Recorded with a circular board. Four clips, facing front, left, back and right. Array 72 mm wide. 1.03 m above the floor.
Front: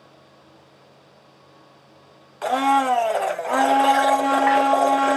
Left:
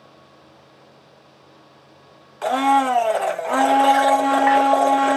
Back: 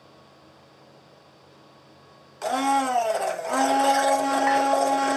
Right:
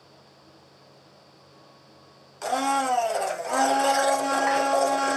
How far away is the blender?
About 0.6 m.